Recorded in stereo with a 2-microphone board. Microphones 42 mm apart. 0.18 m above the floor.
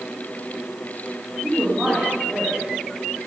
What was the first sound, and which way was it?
A woman speaking, 5° right (ahead or behind).